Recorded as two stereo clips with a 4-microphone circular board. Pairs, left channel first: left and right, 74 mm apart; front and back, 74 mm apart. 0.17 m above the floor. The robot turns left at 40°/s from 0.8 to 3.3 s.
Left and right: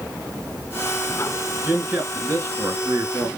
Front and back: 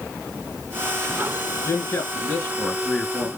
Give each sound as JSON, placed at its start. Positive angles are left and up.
{"t": 1.6, "sound": "a man speaking", "azimuth_deg": -25, "distance_m": 2.5}